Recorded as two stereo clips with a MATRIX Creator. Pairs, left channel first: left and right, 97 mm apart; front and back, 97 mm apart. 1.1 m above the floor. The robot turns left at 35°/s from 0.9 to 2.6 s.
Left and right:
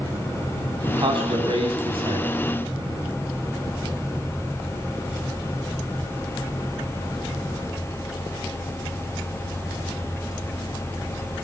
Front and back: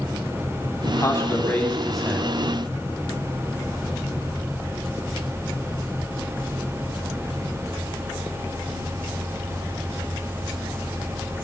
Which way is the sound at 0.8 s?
50° right.